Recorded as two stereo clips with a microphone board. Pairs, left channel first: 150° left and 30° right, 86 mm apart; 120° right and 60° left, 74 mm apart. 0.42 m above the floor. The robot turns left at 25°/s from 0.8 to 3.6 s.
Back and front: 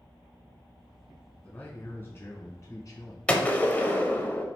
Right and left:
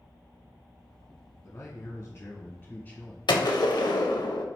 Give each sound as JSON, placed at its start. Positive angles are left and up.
{"t": 1.4, "sound": "a man speaking", "azimuth_deg": -140, "distance_m": 1.2}
{"t": 3.3, "sound": "a gunshot", "azimuth_deg": -135, "distance_m": 0.5}